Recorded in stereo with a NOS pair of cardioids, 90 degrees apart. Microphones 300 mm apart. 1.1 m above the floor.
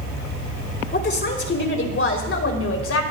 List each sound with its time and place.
0.9 s a woman speaking: 35° left, 4.5 m; by 3.0 s 55° left, 5 m